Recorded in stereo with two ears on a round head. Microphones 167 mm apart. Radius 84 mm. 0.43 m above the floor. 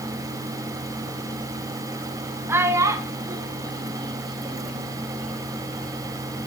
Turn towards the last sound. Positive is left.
turn(degrees=-30)  # may be behind; listen again after turning